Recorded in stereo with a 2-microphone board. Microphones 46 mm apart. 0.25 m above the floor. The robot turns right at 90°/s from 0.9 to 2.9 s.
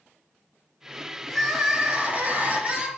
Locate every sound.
1.3 s crying: 165° left, 0.9 m; by 2.9 s 50° right, 0.9 m